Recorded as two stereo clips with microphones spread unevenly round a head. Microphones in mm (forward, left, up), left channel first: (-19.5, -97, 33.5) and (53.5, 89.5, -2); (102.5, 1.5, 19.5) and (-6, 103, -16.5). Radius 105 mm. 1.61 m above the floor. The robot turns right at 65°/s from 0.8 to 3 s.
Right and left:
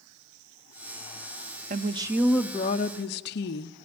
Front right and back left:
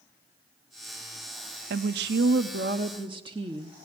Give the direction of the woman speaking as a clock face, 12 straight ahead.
8 o'clock.